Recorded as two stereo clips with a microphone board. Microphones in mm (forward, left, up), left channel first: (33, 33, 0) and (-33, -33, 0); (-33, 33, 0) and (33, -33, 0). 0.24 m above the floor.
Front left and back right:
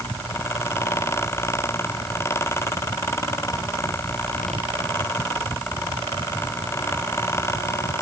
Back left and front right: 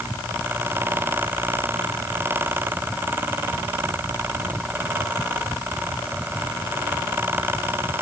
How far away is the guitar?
I don't hear a guitar.